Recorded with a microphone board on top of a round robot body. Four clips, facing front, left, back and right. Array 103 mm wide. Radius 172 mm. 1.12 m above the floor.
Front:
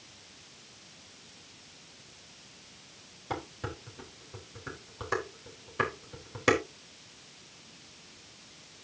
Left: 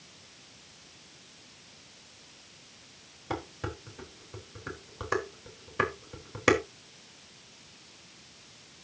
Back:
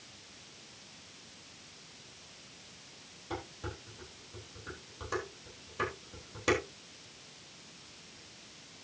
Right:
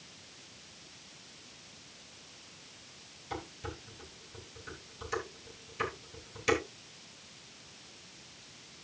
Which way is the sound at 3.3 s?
70° left.